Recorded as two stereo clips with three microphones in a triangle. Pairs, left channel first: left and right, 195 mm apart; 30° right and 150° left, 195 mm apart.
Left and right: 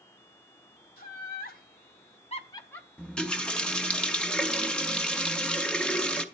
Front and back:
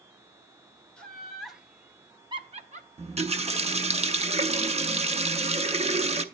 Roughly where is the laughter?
Ahead left.